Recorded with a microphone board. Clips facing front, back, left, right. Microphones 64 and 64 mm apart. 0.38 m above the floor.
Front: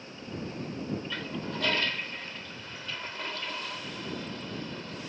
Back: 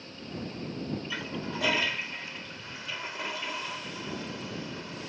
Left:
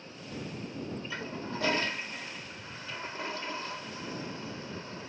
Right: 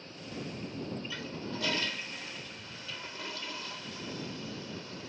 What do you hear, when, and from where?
1.1 s a toilet flushing: 105° left